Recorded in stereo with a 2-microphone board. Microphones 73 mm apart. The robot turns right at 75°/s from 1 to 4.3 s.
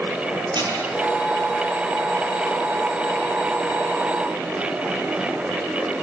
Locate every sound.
0.5 s dishes clattering: 80° right, 8 m